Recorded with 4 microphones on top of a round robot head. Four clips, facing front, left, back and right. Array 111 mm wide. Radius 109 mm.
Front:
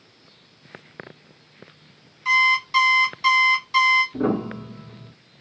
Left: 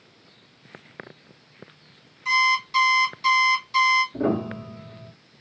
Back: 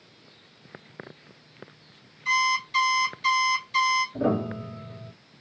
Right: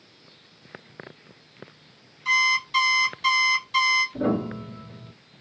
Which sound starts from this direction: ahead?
An alarm clock, at 2.2 s.